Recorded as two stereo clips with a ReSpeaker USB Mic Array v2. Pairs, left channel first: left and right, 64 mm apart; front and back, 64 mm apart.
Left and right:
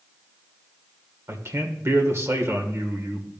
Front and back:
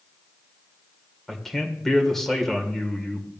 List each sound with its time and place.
1.3 s a man speaking: 85° right, 1.7 m